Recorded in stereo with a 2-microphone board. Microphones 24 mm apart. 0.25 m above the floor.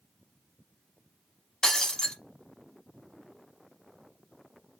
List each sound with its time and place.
1.6 s breaking glass: 25° left (ahead or behind), 0.7 m